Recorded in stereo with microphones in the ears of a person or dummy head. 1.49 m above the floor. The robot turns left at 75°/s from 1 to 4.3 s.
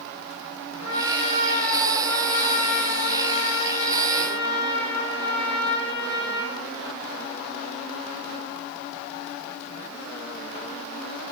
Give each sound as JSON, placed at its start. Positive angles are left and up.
{"t": 0.8, "sound": "a trumpet", "azimuth_deg": -100, "distance_m": 6.0}